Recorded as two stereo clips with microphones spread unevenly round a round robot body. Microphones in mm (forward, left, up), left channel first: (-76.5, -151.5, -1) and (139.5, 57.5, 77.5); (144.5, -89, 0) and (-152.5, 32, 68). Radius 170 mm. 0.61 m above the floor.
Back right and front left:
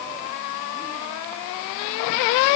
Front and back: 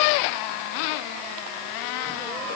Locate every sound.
Only background noise.